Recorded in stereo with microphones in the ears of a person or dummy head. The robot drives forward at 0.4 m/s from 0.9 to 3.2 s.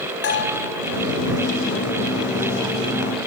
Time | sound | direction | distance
0.2 | a bell | 70° left (ahead or behind) | 4 m